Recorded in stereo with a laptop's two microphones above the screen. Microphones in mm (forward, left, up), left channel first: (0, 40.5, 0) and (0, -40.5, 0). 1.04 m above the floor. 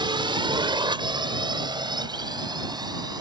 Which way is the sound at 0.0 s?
75° right (ahead or behind).